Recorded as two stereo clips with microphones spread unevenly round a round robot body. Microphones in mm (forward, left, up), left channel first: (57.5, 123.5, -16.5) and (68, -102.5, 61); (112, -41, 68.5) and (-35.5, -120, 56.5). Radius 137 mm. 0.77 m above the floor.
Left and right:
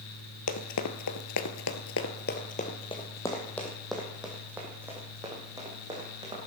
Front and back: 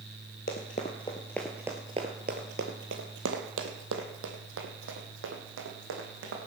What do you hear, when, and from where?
0.5 s running footsteps: 70° left, 1.2 m; by 6.4 s 155° right, 3.5 m